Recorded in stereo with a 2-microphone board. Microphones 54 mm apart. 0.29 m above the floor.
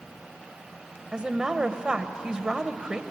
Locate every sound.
1.1 s a woman speaking: 15° right (ahead or behind), 1.0 m